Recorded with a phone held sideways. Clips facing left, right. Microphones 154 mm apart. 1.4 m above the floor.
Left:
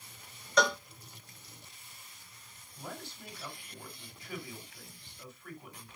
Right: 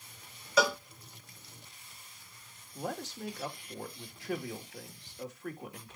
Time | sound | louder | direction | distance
0.6 | a cowbell | right 1 dB | 5° right (ahead or behind) | 0.5 m
2.8 | a man speaking | right 7 dB | 80° right | 1.8 m